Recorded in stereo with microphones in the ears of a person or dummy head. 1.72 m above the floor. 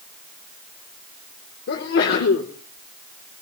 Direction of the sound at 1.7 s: 50° left (ahead or behind).